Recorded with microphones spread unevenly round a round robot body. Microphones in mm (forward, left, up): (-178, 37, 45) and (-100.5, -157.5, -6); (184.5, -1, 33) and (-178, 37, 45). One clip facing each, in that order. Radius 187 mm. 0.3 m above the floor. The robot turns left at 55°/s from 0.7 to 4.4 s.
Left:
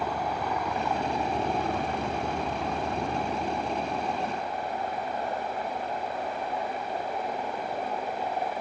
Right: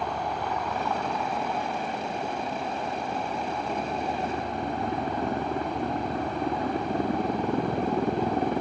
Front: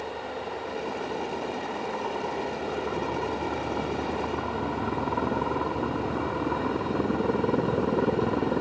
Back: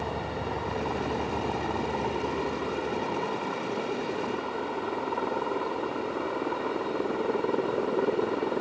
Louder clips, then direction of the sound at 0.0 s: Even, back 2 dB; 160° right.